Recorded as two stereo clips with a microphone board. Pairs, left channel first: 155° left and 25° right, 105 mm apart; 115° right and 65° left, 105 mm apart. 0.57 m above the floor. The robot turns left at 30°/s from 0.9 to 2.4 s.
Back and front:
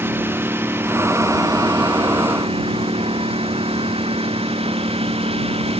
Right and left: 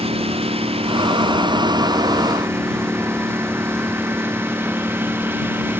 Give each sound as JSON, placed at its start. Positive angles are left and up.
{"t": 0.0, "sound": "a lawn mower", "azimuth_deg": 50}